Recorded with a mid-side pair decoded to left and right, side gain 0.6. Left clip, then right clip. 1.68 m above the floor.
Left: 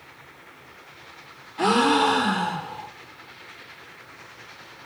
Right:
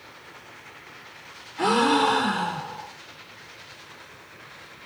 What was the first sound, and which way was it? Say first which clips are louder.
A gasp: left 1 dB; 15° left.